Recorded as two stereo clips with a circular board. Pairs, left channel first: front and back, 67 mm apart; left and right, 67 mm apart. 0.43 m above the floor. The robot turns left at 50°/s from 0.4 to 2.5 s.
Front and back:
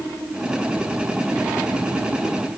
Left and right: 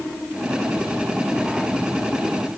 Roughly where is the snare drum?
No snare drum in this recording.